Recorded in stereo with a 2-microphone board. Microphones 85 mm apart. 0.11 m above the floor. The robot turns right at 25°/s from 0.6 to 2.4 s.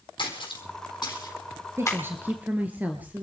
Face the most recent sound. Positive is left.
turn(degrees=-20)  # may be behind; listen again after turning